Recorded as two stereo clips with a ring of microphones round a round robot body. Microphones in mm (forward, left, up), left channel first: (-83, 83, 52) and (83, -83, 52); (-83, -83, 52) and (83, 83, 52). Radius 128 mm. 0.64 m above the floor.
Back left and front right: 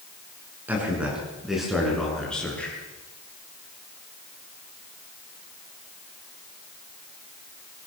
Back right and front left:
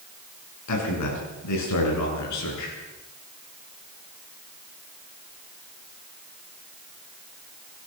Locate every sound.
0.7 s a man speaking: 130° right, 8 m; by 2.8 s 140° right, 10 m